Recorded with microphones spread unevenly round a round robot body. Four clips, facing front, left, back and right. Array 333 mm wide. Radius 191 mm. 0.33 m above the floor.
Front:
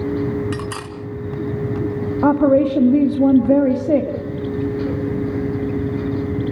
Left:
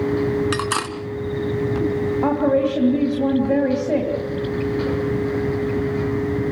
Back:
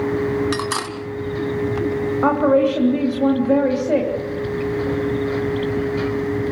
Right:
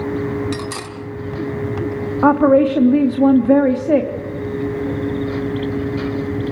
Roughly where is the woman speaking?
Ahead.